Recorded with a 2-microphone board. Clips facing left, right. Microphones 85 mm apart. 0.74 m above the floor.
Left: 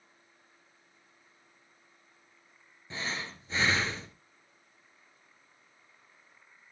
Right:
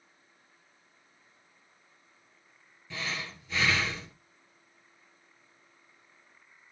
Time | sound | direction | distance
2.9 | breathing | 35° left (ahead or behind) | 2.5 m